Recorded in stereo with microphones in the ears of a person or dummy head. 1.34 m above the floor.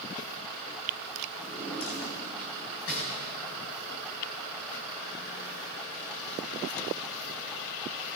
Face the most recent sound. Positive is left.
turn(degrees=75)  # may be behind; listen again after turning